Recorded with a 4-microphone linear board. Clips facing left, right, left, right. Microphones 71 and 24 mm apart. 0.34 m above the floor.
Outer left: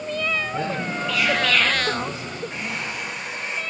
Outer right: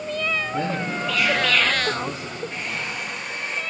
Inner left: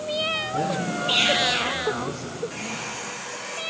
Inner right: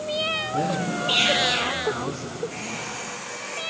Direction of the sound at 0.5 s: 10° left (ahead or behind).